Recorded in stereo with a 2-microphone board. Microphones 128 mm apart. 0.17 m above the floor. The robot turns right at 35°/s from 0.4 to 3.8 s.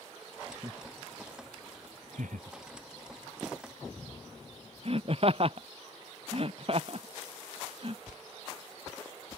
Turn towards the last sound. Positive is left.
turn(degrees=-45)  # may be behind; listen again after turning